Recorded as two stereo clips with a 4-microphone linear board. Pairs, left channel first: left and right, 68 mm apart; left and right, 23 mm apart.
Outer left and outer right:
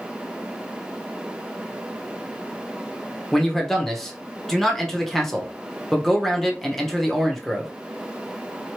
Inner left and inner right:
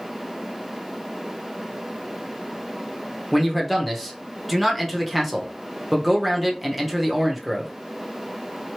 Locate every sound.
3.3 s a man speaking: 5° left (ahead or behind), 1.0 m